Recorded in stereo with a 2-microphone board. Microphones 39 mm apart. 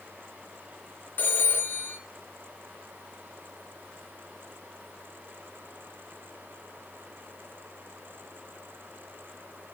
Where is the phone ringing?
50° left (ahead or behind), 2 m.